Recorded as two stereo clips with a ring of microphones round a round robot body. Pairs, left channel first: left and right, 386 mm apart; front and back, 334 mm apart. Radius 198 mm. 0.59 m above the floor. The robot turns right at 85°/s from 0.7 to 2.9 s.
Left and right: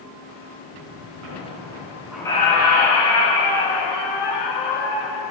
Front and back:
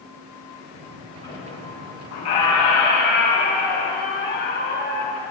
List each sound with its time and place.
1.2 s a squeak: 80° right, 4.5 m; by 5.2 s 60° left, 4.5 m